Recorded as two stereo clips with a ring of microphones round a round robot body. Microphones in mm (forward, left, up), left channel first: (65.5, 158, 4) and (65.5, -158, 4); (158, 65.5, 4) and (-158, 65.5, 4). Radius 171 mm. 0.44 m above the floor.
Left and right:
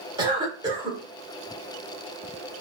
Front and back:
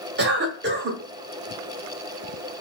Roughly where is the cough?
Behind right.